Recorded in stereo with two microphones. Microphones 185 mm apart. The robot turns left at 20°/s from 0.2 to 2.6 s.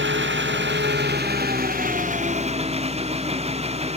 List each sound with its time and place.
0.0 s an engine running: 100° right; by 4.0 s 145° right